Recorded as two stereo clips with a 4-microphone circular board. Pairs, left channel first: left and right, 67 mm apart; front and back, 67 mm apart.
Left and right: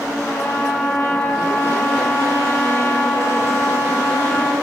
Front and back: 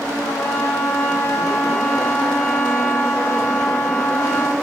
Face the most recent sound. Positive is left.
turn(degrees=45)